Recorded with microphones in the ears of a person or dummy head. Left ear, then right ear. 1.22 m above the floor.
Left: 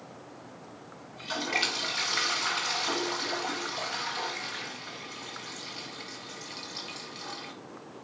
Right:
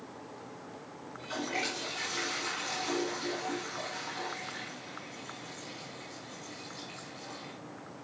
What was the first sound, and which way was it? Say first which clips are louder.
A toilet flushing: left 5 dB; 50° left (ahead or behind).